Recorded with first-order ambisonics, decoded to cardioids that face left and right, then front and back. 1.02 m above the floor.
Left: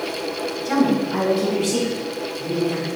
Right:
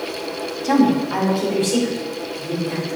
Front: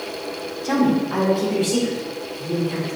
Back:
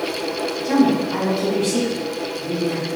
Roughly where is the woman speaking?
Right.